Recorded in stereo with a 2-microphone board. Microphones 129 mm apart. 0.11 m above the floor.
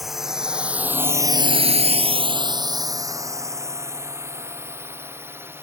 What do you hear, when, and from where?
0.0 s a drone: centre (ahead or behind); by 5.6 s 15° right (ahead or behind)